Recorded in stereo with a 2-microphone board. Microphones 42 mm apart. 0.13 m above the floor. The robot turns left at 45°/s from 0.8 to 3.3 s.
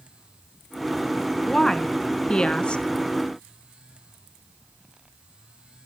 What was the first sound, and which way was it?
A woman speaking, 10° left (ahead or behind).